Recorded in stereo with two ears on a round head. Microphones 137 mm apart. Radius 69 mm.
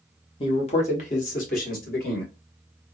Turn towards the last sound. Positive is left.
turn(degrees=60)  # may be behind; listen again after turning